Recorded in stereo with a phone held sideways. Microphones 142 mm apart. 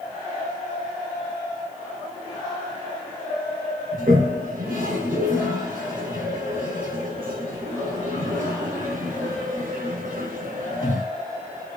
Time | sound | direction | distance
3.9 | a toilet flushing | 65° right (ahead or behind) | 1.0 m